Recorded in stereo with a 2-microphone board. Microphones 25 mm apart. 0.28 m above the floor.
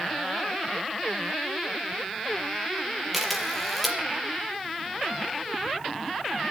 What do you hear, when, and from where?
3.1 s a camera shutter: centre (ahead or behind), 5 m